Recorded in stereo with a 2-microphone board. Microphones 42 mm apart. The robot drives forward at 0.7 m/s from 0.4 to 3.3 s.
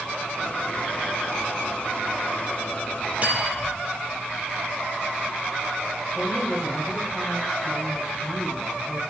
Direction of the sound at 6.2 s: 15° right (ahead or behind).